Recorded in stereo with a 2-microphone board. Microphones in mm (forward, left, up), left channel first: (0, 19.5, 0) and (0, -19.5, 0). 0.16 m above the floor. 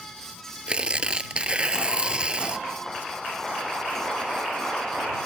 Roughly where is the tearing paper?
Right.